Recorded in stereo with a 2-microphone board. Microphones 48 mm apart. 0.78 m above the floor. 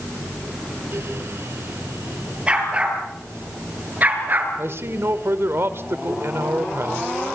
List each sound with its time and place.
2.5 s a dog barking: 25° right (ahead or behind), 7 m; by 4.5 s 40° right (ahead or behind), 5.5 m
4.6 s a man speaking: 60° right (ahead or behind), 2 m